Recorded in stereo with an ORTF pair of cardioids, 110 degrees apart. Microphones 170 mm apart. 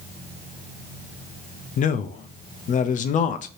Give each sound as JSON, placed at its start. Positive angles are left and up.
{"t": 1.8, "sound": "a man speaking", "azimuth_deg": 50, "distance_m": 0.5}